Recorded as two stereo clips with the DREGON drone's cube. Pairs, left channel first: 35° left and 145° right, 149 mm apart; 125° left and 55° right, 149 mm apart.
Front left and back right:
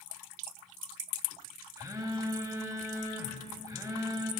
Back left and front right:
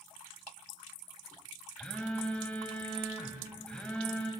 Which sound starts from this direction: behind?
A phone buzzing, at 1.8 s.